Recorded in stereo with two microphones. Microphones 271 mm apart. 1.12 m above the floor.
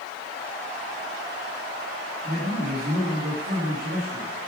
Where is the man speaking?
70° right (ahead or behind), 1.9 m.